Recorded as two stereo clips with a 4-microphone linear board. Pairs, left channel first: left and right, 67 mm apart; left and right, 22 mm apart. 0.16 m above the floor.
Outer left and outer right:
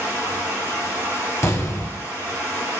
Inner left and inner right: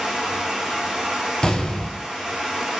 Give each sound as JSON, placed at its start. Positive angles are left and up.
{"t": 0.0, "sound": "running water", "side_deg": -40, "distance_m": 1.5}
{"t": 1.4, "sound": "an explosion", "side_deg": 45, "distance_m": 0.7}